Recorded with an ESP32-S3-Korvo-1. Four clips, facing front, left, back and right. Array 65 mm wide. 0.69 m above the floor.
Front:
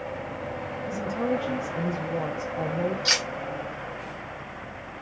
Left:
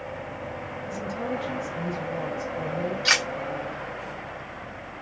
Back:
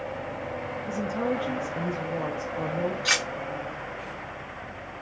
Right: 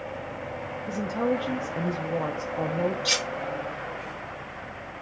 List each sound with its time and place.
0.9 s a woman speaking: 95° right, 0.9 m
3.0 s cutlery clinking: 110° left, 0.7 m